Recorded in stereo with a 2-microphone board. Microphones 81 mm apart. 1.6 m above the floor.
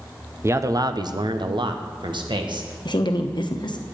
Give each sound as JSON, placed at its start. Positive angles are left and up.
{"t": 0.4, "sound": "a man speaking", "side_deg": -35, "distance_m": 0.6}
{"t": 2.9, "sound": "a woman speaking", "side_deg": 65, "distance_m": 1.1}